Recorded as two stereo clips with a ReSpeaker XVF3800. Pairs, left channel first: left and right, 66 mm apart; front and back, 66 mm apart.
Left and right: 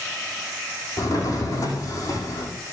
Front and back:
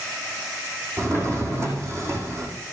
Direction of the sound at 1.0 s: 130° left.